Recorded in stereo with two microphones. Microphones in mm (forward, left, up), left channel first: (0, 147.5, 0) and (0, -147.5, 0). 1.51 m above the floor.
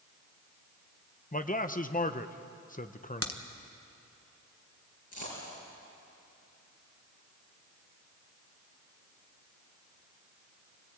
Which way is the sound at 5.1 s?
80° left.